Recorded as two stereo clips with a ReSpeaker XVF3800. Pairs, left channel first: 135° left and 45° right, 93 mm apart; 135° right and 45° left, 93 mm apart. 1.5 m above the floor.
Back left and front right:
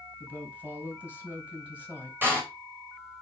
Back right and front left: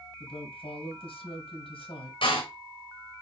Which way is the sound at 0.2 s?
125° right.